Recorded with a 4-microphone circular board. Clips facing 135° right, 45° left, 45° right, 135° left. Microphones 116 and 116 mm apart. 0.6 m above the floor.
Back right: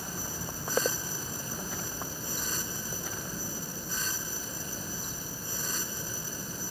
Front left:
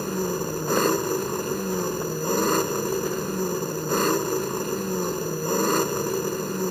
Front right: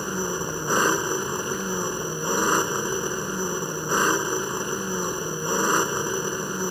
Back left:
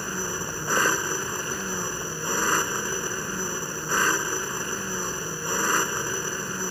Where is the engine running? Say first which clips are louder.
Front left 14 dB, front right 4 dB; 25° left.